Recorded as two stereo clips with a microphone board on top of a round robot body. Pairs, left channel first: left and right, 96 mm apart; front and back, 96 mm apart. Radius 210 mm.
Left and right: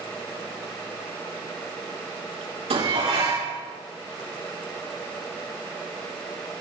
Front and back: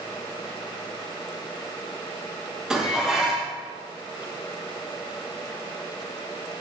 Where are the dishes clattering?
95° right, 7 m.